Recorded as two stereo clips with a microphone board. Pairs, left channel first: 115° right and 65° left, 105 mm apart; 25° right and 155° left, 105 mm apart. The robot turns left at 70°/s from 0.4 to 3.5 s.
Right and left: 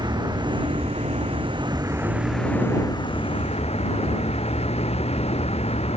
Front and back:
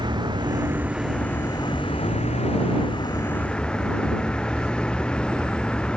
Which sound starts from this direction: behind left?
A vehicle, at 0.0 s.